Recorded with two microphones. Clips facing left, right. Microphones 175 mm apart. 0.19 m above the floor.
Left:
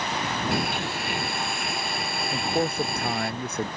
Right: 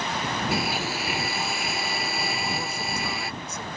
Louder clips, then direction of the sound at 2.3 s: Left 6 dB; 55° left (ahead or behind).